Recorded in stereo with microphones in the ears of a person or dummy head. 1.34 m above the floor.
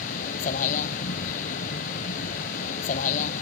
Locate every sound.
0.0 s a vehicle: 45° left (ahead or behind)